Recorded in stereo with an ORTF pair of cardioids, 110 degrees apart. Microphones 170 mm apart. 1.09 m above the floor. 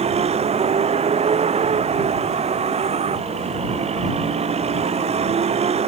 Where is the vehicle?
40° right.